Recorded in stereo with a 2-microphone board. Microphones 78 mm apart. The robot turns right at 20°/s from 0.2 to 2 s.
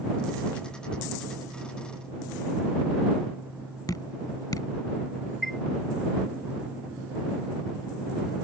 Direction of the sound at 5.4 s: 5° left (ahead or behind).